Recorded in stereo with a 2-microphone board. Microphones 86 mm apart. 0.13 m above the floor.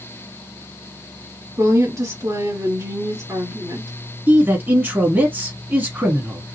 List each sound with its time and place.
1.6 s a woman speaking: 40° right (ahead or behind), 2.5 m
4.3 s a man speaking: 25° right (ahead or behind), 1.2 m